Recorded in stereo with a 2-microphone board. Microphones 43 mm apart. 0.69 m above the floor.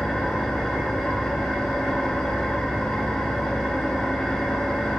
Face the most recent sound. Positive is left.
turn(degrees=15)  # may be behind; listen again after turning